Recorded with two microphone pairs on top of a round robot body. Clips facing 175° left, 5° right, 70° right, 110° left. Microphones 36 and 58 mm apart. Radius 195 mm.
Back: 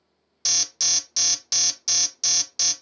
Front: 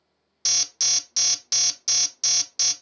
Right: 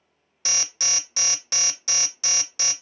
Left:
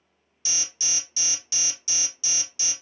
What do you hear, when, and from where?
0.5 s an alarm: 90° right, 0.8 m